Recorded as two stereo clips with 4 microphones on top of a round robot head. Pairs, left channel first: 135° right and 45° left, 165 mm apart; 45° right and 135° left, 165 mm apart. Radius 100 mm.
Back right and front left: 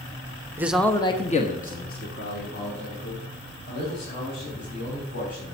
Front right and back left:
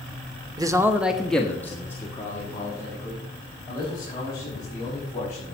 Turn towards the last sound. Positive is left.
turn(degrees=-115)